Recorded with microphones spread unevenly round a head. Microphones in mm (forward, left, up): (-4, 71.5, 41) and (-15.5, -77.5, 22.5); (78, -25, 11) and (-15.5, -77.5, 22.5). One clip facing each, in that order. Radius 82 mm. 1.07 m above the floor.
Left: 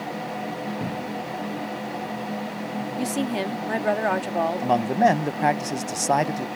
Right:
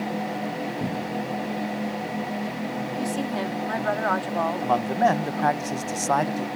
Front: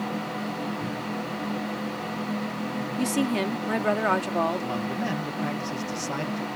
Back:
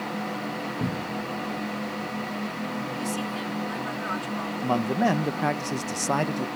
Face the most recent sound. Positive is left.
turn(degrees=160)